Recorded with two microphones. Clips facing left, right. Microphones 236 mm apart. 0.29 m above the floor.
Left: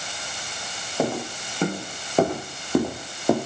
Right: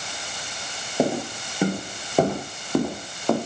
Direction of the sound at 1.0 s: 15° right (ahead or behind).